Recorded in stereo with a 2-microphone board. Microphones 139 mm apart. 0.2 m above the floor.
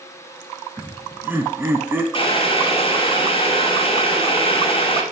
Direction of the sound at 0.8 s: 15° right (ahead or behind).